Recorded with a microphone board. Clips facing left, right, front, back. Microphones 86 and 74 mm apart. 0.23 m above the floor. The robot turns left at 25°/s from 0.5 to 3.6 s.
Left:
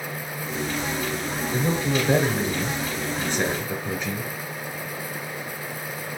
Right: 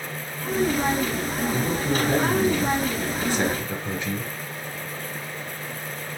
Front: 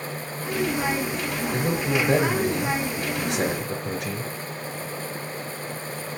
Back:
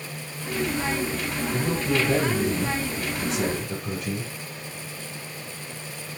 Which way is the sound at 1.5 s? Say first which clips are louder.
Left 3 dB, even; 65° left.